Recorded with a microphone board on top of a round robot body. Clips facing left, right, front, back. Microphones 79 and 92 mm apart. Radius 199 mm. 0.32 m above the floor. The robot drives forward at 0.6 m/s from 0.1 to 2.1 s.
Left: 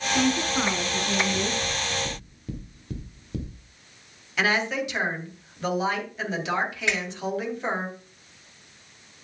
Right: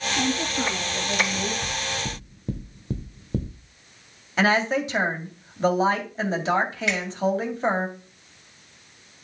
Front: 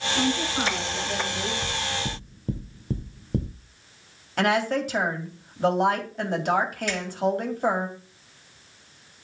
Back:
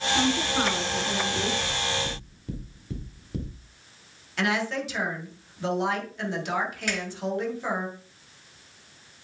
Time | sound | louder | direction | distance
0.1 | a woman speaking | left 3 dB, even | 105° left | 5.5 m
1.6 | knocking | left 1 dB, even | 35° right | 1.8 m
4.4 | a woman speaking | right 4 dB, front 4 dB | 40° right | 2.5 m
6.9 | a finger snap | right 1 dB, front 1 dB | 145° left | 7.5 m